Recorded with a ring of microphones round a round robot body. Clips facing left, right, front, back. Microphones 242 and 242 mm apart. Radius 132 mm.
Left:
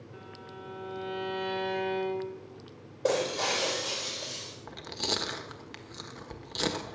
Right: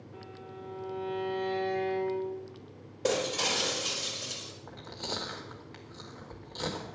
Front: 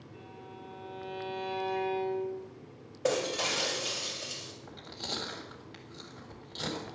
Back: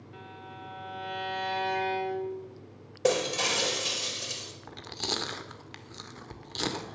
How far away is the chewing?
About 1.4 m.